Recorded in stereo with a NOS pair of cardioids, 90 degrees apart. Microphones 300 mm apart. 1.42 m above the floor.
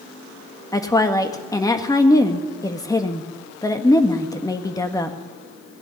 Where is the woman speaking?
10° left, 1.7 m.